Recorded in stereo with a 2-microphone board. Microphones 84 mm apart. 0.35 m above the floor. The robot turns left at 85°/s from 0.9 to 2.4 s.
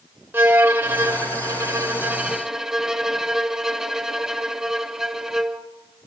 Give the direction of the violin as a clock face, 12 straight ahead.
1 o'clock.